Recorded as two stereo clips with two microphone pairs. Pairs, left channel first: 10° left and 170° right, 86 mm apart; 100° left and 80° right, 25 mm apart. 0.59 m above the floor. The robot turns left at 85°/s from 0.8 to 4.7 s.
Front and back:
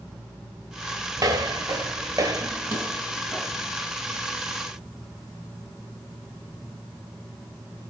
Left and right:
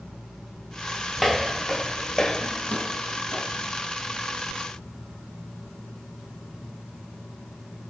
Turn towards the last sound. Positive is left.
turn(degrees=-15)